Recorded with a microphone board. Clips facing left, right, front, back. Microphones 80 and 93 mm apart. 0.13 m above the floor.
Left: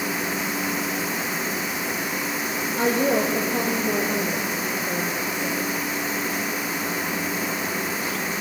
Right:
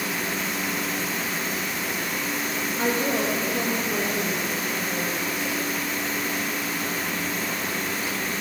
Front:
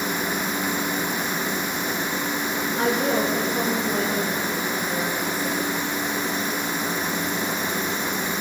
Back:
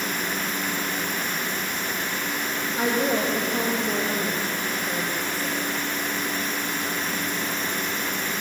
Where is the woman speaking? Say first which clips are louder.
Left 4 dB, front 1 dB; 100° left, 5 m; by 5.8 s 105° left, 7.5 m.